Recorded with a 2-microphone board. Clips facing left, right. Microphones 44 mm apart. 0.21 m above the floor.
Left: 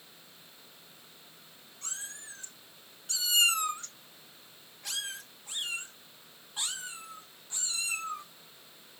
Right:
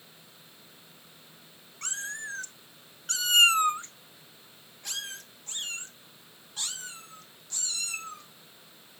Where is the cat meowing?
70° right (ahead or behind), 1.3 m; by 9.0 s 25° left (ahead or behind), 4 m.